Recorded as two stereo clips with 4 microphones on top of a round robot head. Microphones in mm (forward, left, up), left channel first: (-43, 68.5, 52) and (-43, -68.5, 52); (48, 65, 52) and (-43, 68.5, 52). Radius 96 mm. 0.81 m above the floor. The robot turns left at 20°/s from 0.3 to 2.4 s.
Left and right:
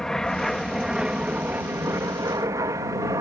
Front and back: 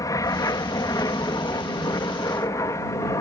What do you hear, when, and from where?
0.0 s an aircraft: 5° left; by 3.2 s 35° right